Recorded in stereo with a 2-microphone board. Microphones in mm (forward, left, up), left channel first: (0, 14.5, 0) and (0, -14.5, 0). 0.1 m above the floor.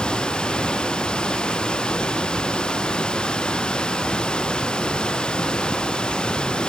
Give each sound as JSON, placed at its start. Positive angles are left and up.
{"t": 0.0, "sound": "running water", "side_deg": 25}